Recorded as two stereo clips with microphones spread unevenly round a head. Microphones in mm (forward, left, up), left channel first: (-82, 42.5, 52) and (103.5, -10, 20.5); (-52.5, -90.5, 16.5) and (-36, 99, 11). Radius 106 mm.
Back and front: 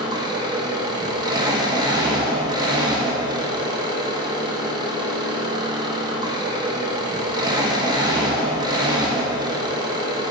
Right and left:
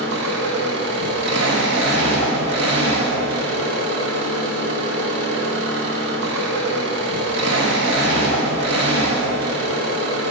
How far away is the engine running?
About 1.2 m.